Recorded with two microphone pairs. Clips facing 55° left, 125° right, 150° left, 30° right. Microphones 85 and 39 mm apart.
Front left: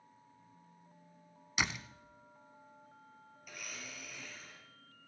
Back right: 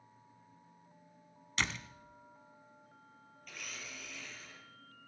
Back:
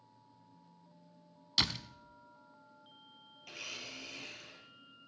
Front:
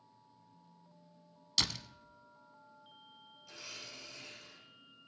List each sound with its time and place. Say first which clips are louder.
1.6 s a door slam: front left 1 dB, back 2 dB; 105° left, 0.7 m
3.4 s a blender: even, back 5 dB; 135° left, 5 m